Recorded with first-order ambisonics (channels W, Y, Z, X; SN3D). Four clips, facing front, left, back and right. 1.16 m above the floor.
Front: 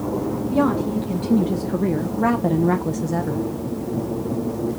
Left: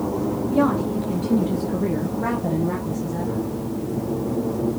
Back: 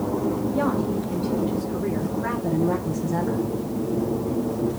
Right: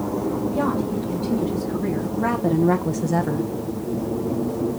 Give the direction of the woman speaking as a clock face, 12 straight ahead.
11 o'clock.